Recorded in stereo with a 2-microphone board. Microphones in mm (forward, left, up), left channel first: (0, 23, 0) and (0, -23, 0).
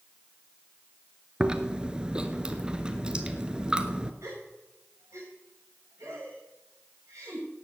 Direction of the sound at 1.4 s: 20° right (ahead or behind).